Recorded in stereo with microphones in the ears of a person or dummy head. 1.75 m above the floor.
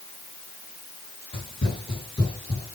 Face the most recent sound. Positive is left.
turn(degrees=5)  # may be behind; listen again after turning